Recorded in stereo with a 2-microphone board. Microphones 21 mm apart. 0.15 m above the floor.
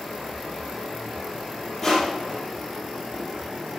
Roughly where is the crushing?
Centre.